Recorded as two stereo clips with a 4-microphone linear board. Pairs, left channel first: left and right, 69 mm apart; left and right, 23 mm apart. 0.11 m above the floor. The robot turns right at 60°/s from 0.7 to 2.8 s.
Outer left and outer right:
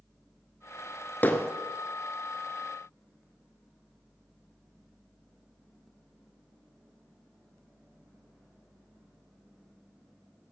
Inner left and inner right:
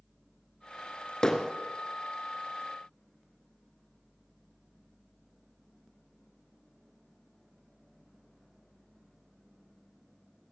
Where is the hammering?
25° left (ahead or behind), 1.2 m; by 1.5 s 20° left (ahead or behind), 1.2 m.